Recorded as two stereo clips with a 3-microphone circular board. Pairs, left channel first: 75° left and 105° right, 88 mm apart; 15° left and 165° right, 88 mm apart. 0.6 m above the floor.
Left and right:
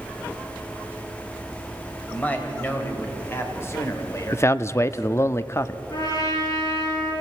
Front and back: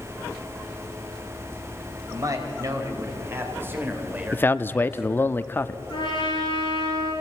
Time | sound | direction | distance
2.1 | a man speaking | 150° left | 3.5 m
4.3 | a man speaking | 55° left | 0.6 m
5.9 | a trumpet | 40° left | 8 m